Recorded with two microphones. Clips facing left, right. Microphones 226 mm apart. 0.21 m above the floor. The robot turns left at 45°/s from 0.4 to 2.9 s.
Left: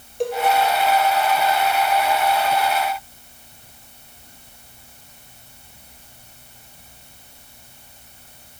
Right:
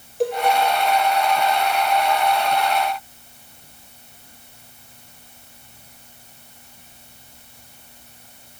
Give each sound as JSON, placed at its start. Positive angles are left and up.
{"t": 0.2, "sound": "a cowbell", "side_deg": 0, "distance_m": 2.5}